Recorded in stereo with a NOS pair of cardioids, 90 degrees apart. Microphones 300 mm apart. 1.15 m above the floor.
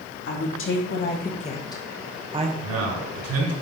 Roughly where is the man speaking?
Ahead right.